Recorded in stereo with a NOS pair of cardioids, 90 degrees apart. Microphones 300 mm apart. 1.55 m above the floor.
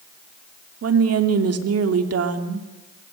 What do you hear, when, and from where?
0.8 s a woman speaking: 55° right, 3 m